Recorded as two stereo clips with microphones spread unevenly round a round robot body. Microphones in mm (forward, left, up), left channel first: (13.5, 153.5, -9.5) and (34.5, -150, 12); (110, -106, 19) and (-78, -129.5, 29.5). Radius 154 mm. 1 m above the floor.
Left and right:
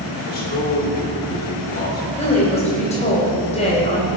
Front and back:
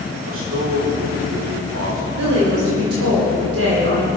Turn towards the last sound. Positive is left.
turn(degrees=165)